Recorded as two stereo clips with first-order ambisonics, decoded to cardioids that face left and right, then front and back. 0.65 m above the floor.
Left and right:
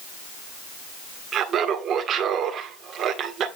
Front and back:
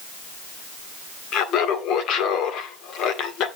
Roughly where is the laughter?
Ahead right.